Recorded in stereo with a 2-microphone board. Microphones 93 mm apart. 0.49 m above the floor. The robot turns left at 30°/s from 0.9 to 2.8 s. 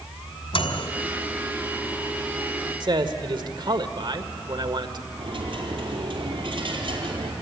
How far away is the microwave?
About 2.5 m.